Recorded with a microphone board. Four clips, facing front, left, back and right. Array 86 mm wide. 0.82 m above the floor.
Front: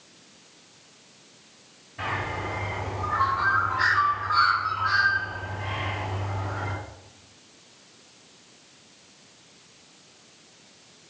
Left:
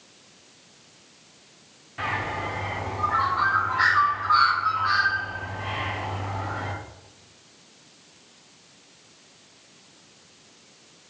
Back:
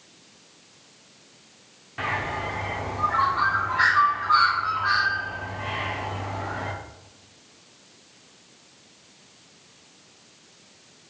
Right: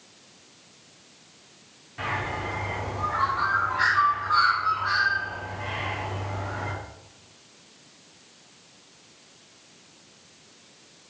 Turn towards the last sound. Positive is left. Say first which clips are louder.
# left 1 dB, back 2 dB
turn(degrees=170)